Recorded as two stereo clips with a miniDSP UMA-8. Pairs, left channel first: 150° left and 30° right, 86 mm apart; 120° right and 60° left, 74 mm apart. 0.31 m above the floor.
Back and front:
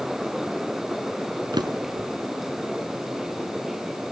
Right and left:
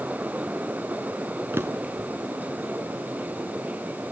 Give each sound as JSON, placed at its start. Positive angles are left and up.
{"t": 1.5, "sound": "a drawer", "azimuth_deg": 5, "distance_m": 1.7}